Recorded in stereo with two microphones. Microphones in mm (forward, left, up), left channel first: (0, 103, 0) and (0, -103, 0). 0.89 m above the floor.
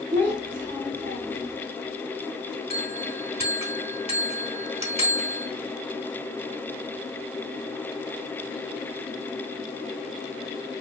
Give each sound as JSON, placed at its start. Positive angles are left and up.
{"t": 0.1, "sound": "a child speaking", "side_deg": 25, "distance_m": 1.4}
{"t": 2.7, "sound": "a bell", "side_deg": -30, "distance_m": 0.8}